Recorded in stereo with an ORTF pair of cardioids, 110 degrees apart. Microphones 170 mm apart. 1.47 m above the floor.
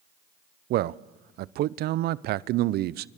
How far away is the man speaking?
About 0.6 m.